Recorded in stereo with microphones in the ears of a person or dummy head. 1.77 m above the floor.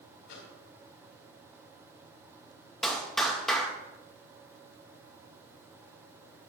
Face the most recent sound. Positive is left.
turn(degrees=0)  # may be behind; listen again after turning